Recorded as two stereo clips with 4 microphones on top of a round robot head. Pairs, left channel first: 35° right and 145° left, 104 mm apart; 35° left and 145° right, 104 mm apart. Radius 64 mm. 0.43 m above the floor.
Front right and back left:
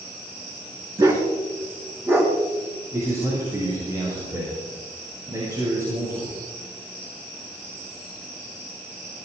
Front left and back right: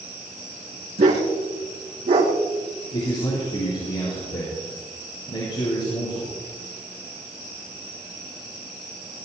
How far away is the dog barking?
About 3 m.